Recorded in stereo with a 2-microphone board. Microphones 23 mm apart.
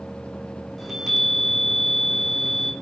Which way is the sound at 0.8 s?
5° left (ahead or behind).